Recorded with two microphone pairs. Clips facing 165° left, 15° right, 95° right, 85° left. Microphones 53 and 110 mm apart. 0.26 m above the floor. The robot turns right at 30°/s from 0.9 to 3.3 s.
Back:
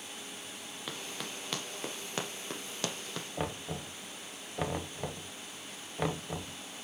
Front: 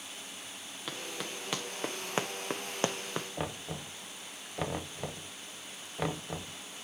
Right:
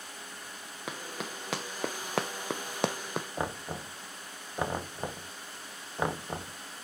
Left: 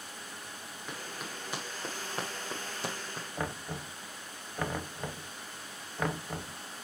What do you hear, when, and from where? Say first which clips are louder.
0.9 s running footsteps: front 2 dB, right 4 dB; 110° right, 2 m; by 3.3 s 85° right, 0.6 m
3.4 s knocking: back 1 dB, right 2 dB; 130° right, 0.6 m